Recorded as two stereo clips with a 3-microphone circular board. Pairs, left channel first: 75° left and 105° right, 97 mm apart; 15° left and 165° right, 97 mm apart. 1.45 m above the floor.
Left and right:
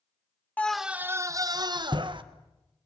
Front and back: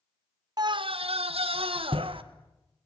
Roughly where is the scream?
Behind left.